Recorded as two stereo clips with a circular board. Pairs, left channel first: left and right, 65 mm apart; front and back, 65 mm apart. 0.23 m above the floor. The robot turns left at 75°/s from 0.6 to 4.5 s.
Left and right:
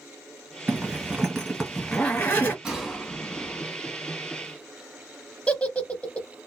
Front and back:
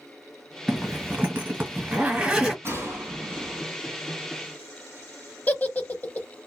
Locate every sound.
0.7 s a zipper: 120° right, 1.4 m; by 2.5 s 100° left, 1.4 m
2.6 s a gunshot: 160° right, 1.6 m; by 3.7 s 125° left, 1.6 m
5.5 s a giggle: 40° left, 0.6 m